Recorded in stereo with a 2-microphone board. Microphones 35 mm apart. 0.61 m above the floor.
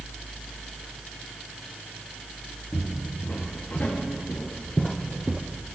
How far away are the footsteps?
About 4.5 m.